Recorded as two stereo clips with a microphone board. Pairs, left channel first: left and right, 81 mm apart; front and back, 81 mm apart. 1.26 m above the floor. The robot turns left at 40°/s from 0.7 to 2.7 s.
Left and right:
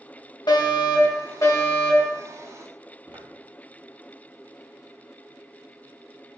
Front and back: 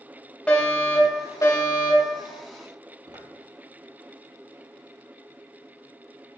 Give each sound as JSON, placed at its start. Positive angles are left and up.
{"t": 0.5, "sound": "a fire alarm", "azimuth_deg": 75, "distance_m": 2.5}
{"t": 3.1, "sound": "footsteps", "azimuth_deg": -155, "distance_m": 2.5}